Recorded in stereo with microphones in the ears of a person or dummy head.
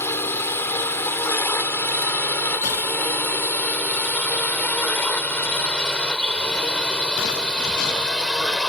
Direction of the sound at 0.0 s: 10° left (ahead or behind).